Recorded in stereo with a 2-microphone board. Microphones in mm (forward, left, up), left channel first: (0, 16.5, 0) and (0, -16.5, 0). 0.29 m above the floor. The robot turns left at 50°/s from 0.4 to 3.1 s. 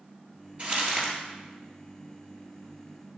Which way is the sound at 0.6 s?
40° right (ahead or behind).